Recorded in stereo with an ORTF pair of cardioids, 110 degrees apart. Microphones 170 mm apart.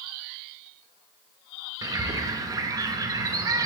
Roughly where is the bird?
Ahead.